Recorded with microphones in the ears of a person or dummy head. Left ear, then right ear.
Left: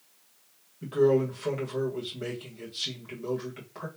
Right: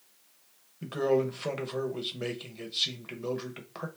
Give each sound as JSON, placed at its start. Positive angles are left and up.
{"t": 0.8, "sound": "a man speaking", "side_deg": -45, "distance_m": 1.4}